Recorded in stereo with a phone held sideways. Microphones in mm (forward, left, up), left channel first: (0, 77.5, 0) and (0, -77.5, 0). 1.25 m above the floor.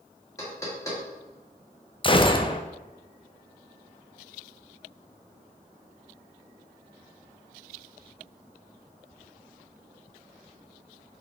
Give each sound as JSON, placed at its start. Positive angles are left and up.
{"t": 0.4, "sound": "knocking", "side_deg": 20, "distance_m": 2.0}
{"t": 2.0, "sound": "a gunshot", "side_deg": 35, "distance_m": 0.6}